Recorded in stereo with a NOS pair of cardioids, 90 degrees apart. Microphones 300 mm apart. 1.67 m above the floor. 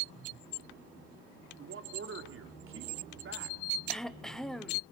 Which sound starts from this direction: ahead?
Throat clearing, at 3.9 s.